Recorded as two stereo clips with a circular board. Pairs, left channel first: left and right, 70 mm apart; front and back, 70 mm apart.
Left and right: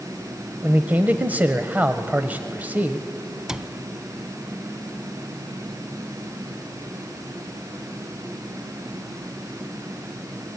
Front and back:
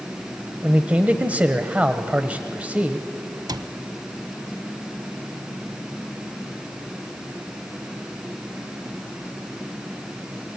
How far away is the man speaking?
About 1.0 m.